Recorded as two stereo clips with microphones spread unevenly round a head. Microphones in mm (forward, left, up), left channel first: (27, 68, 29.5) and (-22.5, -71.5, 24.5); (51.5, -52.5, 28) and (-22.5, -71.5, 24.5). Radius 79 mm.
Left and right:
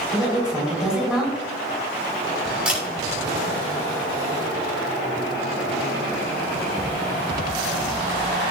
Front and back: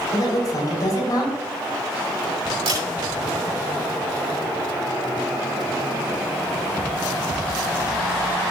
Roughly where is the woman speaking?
Ahead right.